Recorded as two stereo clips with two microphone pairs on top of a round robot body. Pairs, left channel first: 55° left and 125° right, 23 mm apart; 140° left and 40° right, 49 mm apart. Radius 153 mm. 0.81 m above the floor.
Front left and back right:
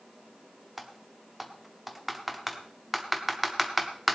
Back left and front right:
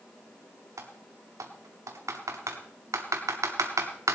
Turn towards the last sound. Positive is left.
turn(degrees=-45)